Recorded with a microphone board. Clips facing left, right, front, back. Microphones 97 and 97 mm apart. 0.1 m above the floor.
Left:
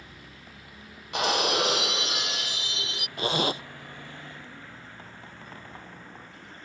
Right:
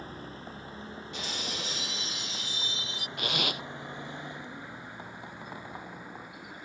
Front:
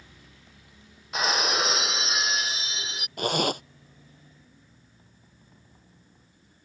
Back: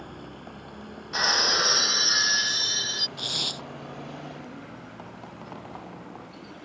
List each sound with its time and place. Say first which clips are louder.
0.0 s a vehicle: right 7 dB, back 14 dB; 145° right; by 6.7 s 170° right
1.1 s breaking glass: left 15 dB, even; 90° left
3.2 s a zipper: left 7 dB, front 15 dB; 35° left